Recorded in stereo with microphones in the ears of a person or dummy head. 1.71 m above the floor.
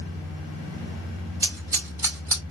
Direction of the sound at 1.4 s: 15° right (ahead or behind).